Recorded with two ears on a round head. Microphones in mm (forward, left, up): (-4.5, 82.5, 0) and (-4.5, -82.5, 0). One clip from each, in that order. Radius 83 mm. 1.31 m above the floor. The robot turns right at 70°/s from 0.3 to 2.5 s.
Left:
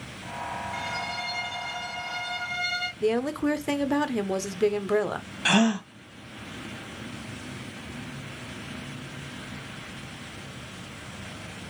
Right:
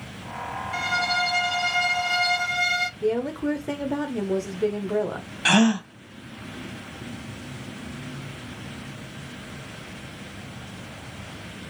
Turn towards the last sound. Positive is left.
turn(degrees=-5)  # may be behind; listen again after turning